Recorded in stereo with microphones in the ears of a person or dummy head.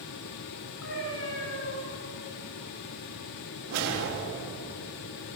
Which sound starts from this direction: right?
A whoosh, at 3.7 s.